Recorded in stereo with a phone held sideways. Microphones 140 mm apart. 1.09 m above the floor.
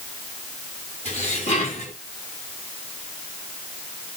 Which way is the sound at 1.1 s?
50° left (ahead or behind).